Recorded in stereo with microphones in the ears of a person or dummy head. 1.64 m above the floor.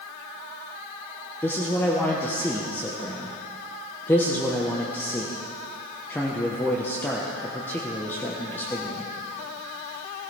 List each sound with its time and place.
1.4 s a man speaking: 15° left (ahead or behind), 1.2 m